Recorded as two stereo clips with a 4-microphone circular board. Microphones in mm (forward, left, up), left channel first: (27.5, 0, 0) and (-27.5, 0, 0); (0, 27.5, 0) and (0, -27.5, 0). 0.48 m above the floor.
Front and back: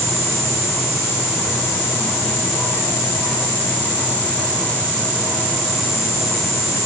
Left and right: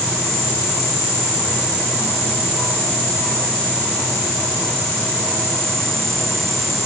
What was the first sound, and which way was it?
Only background noise.